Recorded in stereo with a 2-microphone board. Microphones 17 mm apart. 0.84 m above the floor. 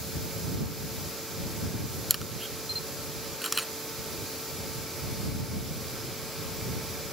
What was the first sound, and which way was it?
A camera shutter, 5° right (ahead or behind).